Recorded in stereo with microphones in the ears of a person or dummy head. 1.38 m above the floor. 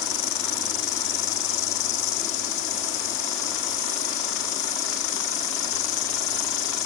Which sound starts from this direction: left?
An insect, at 0.0 s.